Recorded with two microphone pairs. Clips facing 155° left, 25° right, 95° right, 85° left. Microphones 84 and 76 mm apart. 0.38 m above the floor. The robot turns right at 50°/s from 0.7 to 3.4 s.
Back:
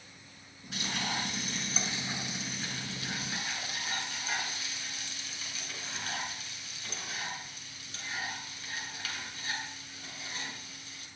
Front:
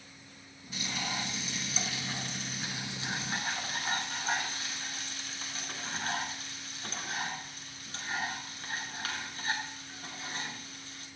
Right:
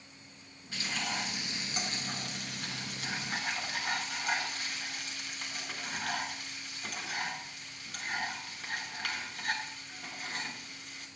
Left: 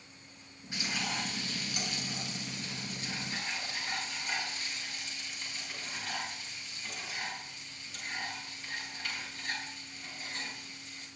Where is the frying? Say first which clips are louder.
Back 1 dB, even; 155° left, 5.5 m; by 11.1 s 70° right, 5.5 m.